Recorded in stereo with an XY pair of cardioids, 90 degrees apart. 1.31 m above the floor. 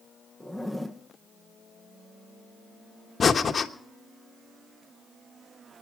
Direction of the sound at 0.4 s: 5° right.